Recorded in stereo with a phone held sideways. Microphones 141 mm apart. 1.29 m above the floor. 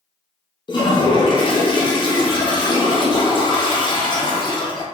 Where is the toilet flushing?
35° left (ahead or behind), 0.6 m.